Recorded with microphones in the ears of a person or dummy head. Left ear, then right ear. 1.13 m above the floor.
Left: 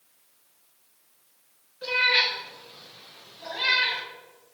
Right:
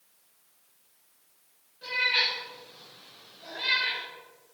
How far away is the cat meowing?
About 3 m.